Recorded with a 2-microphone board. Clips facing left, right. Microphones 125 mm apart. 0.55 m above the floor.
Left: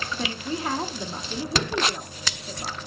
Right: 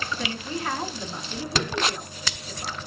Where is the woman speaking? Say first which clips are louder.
Left 4 dB; 30° left (ahead or behind), 0.7 m.